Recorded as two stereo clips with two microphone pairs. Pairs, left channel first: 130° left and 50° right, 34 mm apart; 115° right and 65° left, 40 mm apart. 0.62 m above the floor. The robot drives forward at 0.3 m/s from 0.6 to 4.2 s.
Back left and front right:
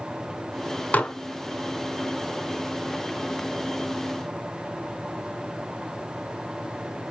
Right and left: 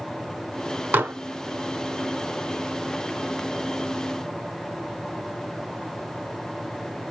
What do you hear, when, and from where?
0.9 s dishes clattering: 95° left, 0.9 m; by 1.1 s 100° left, 0.9 m